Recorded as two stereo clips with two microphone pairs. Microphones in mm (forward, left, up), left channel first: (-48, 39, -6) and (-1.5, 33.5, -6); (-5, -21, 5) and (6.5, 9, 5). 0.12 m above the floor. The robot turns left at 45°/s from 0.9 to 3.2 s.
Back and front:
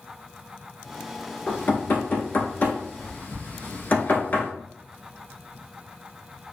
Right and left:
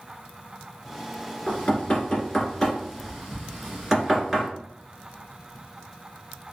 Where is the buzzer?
I don't hear a buzzer.